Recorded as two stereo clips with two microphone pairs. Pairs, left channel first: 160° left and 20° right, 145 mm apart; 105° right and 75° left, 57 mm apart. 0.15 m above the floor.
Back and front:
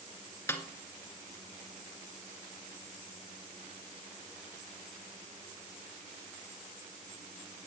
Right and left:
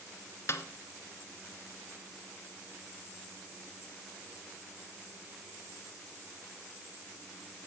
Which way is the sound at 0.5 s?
130° right.